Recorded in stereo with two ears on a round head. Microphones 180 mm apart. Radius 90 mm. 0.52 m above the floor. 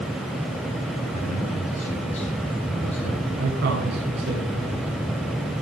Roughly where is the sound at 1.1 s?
Left.